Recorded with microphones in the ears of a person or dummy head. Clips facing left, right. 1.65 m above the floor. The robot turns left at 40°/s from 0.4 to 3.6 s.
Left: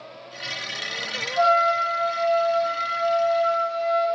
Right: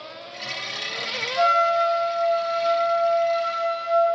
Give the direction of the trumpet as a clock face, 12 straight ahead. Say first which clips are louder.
Even; 5 o'clock.